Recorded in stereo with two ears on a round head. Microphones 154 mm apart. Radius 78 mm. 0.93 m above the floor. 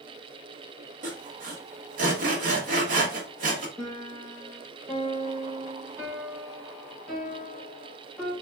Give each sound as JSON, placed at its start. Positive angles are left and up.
{"t": 1.0, "sound": "sawing", "side_deg": -50, "distance_m": 0.9}
{"t": 3.8, "sound": "a piano", "side_deg": 0, "distance_m": 1.5}